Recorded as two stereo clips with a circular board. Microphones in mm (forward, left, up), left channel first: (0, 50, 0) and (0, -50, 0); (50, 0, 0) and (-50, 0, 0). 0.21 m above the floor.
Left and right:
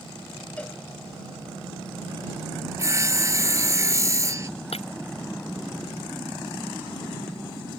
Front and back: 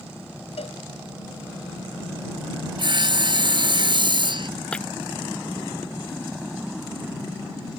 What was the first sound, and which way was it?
A cowbell, 15° left.